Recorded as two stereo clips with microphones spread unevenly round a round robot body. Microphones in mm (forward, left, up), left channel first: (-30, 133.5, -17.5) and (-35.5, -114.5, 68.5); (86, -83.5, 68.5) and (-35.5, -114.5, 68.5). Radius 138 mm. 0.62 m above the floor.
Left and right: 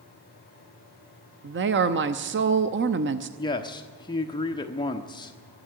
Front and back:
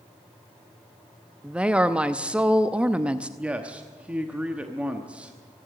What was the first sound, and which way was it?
A woman speaking, 95° right.